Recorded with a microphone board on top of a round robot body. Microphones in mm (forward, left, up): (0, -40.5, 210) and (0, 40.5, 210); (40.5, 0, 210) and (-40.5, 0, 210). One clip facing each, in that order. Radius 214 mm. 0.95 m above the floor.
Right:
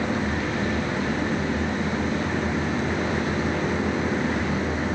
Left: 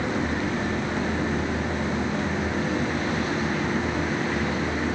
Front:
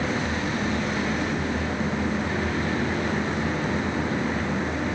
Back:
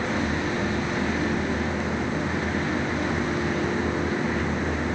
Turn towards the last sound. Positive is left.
No sound to turn to.